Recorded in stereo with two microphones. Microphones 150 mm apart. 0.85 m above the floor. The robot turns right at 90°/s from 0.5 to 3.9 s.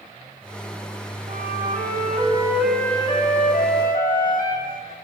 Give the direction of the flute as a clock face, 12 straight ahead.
4 o'clock.